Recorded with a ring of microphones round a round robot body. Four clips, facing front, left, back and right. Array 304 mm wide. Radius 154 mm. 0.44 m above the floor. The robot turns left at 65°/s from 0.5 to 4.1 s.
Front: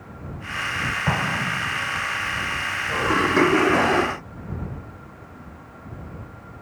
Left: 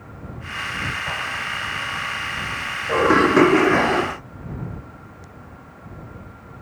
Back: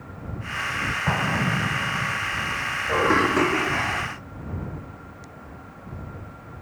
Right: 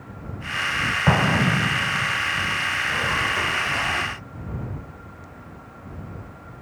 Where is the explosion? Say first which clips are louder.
Right 8 dB, back 1 dB; 85° right; by 2.2 s 160° right.